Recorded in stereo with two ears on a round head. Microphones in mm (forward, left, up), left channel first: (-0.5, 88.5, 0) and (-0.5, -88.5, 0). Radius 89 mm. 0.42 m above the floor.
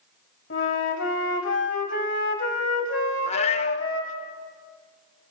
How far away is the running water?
I don't hear running water.